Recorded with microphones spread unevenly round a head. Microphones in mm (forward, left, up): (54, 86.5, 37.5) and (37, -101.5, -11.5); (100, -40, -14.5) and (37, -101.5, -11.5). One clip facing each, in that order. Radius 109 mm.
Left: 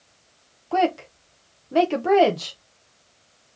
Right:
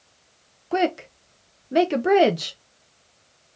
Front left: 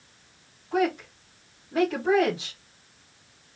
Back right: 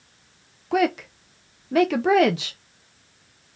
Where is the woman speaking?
175° right, 0.6 m.